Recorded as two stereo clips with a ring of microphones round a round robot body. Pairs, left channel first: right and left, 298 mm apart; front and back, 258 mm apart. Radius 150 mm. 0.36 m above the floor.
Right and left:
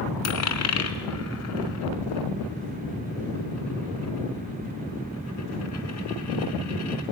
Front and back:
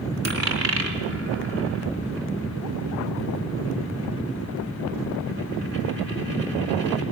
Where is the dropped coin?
125° right, 2.5 m.